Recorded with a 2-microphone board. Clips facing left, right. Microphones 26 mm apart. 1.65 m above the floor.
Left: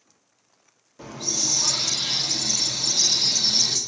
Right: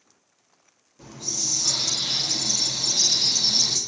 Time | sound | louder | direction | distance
1.0 | a hiss | left 3 dB | 60° left (ahead or behind) | 1.5 m